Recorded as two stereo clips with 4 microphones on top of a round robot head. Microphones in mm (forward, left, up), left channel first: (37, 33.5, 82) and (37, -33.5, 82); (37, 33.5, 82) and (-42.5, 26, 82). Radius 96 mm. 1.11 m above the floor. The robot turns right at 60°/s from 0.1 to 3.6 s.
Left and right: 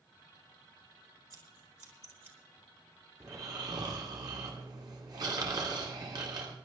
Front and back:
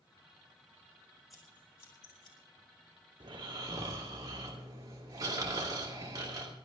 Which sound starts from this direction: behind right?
Snoring, at 3.2 s.